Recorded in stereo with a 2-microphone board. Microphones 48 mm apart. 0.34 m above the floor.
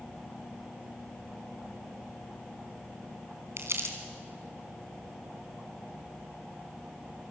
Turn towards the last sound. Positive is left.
turn(degrees=-70)  # may be behind; listen again after turning